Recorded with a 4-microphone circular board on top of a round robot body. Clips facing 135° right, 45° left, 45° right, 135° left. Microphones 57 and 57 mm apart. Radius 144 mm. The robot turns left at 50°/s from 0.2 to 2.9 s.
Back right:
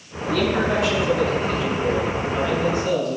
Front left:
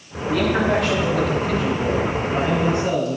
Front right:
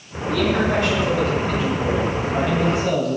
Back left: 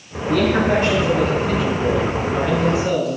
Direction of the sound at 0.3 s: 100° left.